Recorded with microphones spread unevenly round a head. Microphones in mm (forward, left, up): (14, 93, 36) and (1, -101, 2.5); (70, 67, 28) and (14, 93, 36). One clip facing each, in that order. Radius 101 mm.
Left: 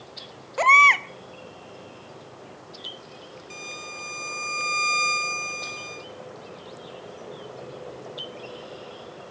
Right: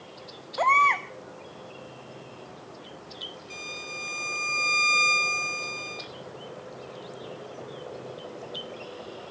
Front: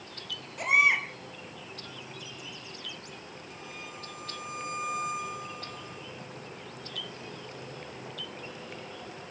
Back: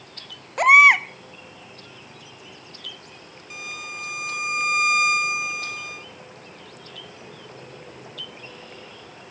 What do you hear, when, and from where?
0.6 s a baby crying: 135° left, 0.9 m
3.5 s a violin: 170° left, 0.8 m